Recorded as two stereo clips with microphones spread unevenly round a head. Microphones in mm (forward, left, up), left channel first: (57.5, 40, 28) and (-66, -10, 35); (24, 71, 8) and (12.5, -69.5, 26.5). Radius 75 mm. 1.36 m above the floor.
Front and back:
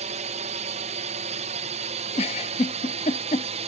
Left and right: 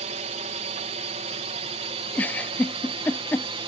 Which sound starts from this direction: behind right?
A drone, at 0.0 s.